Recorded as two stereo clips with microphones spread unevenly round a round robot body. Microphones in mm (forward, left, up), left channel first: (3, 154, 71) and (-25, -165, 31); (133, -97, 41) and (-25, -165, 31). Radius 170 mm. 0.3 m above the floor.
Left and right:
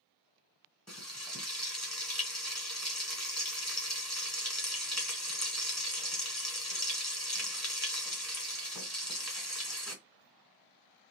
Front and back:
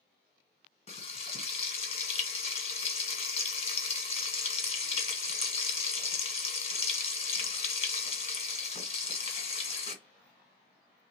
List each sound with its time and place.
0.9 s frying: 10° right, 1.5 m